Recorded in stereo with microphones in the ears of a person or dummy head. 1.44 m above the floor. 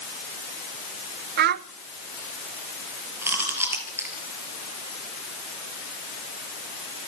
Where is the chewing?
10° right (ahead or behind), 4.5 m.